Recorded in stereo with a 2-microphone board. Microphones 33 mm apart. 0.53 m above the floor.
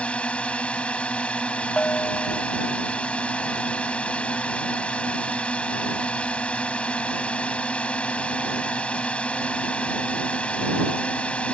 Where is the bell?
35° left (ahead or behind).